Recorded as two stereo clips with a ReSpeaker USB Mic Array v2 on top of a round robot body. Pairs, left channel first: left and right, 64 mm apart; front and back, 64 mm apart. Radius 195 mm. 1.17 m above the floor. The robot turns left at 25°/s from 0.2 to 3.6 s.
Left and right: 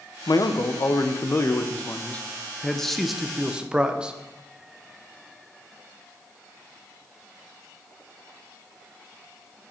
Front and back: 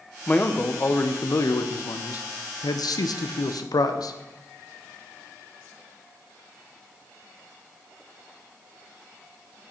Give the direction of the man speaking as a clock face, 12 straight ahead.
10 o'clock.